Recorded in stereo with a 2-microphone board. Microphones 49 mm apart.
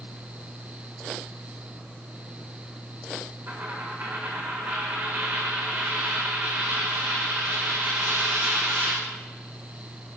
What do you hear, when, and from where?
3.5 s a dropped coin: 45° right (ahead or behind), 3.5 m